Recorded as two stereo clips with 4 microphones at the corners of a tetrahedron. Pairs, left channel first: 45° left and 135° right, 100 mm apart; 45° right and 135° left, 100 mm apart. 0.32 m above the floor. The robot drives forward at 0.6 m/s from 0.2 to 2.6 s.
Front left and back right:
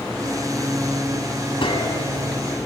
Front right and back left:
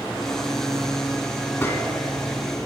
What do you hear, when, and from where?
1.6 s a gunshot: 20° left, 1.5 m; by 2.0 s 25° left, 1.3 m